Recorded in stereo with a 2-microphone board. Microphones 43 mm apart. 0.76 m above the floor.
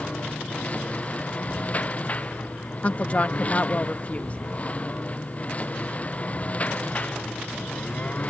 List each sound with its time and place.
0.0 s a lawn mower: 35° left (ahead or behind)
2.8 s a woman speaking: 35° left (ahead or behind)